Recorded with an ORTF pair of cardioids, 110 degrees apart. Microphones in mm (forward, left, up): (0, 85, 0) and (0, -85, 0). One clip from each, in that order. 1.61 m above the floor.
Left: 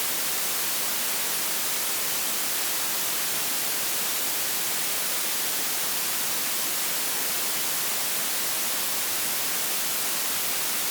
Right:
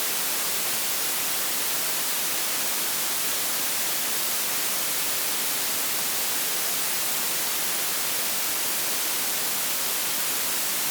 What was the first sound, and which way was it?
Only background noise.